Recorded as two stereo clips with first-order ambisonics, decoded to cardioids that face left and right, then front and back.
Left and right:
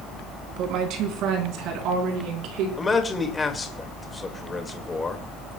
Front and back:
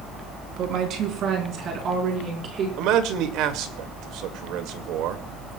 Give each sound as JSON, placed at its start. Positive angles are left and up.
{"t": 0.6, "sound": "a woman speaking", "azimuth_deg": -130, "distance_m": 4.0}
{"t": 2.8, "sound": "a man speaking", "azimuth_deg": 165, "distance_m": 2.0}